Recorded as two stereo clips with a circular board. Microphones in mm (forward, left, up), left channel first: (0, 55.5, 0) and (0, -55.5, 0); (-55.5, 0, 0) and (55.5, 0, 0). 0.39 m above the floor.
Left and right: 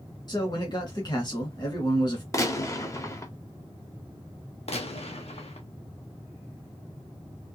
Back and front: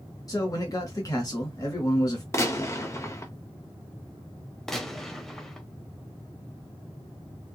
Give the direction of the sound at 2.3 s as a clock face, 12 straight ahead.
8 o'clock.